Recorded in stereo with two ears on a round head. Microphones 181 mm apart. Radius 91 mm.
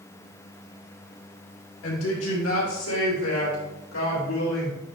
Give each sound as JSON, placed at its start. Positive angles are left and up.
{"t": 1.8, "sound": "a woman speaking", "side_deg": 85, "distance_m": 2.5}